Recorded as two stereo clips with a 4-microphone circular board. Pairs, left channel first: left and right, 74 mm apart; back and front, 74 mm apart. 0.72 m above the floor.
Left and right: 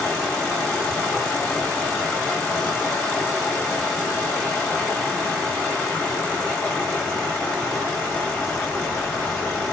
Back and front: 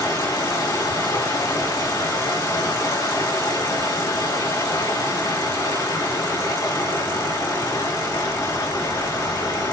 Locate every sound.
0.0 s running water: 160° left, 2.5 m